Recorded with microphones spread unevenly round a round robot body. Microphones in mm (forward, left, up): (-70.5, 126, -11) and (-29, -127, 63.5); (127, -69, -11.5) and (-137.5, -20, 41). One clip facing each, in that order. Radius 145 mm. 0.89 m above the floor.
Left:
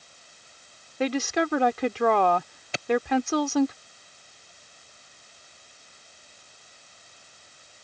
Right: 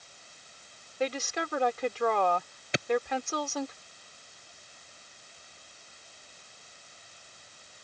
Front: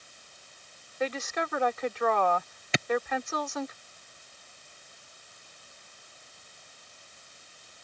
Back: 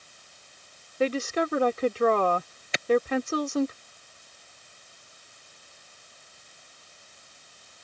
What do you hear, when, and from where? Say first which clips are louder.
1.0 s a woman speaking: left 7 dB, back 6 dB; 105° left
2.7 s a clap: right 4 dB, front 5 dB; 10° right